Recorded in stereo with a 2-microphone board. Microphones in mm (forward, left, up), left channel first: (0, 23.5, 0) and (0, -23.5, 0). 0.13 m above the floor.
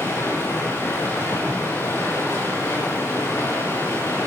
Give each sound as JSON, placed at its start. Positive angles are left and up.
{"t": 0.0, "sound": "running water", "side_deg": 65, "distance_m": 9.0}